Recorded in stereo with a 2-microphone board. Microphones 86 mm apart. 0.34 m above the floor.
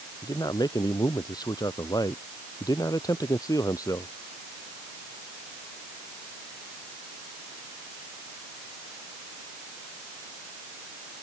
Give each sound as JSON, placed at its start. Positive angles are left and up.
{"t": 0.2, "sound": "a man speaking", "side_deg": 50}